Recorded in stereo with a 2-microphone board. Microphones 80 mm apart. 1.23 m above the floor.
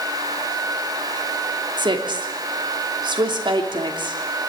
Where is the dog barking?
I don't hear a dog barking.